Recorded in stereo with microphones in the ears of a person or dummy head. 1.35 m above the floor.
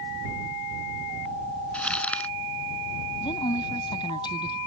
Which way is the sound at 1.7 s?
5° left (ahead or behind).